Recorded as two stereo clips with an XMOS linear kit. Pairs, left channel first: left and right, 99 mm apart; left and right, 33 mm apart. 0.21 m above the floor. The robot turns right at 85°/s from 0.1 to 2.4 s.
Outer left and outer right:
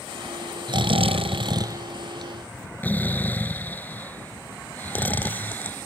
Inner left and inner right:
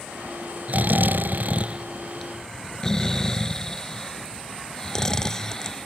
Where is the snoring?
50° right (ahead or behind); by 5.9 s 20° left (ahead or behind).